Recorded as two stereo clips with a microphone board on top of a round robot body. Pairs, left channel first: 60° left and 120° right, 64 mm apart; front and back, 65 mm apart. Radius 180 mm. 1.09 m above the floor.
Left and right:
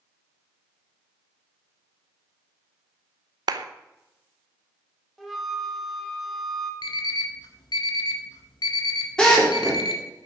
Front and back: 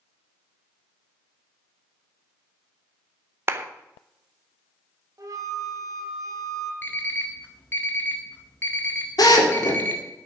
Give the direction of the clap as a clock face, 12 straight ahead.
4 o'clock.